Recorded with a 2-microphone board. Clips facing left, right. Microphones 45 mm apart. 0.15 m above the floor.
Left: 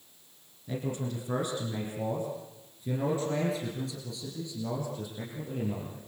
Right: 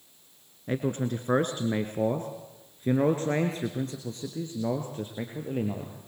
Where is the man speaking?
50° right (ahead or behind), 2 m; by 6.0 s 35° right (ahead or behind), 3.5 m.